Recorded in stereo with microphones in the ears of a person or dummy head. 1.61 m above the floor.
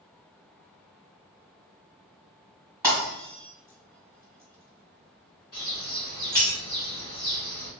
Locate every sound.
2.8 s breaking glass: 5° left (ahead or behind), 1.5 m
5.5 s a bird: 35° left (ahead or behind), 1.4 m